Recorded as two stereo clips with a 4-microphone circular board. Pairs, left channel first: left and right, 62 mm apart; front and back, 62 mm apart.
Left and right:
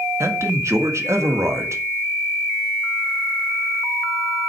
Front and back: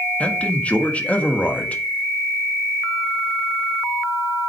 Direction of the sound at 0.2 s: 65° right.